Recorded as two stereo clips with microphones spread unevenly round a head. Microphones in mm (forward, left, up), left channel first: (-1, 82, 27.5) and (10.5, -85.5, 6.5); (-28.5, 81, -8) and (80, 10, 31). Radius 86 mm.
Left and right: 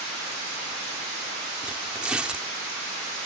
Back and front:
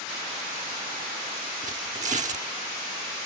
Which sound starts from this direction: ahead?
Tearing paper, at 1.6 s.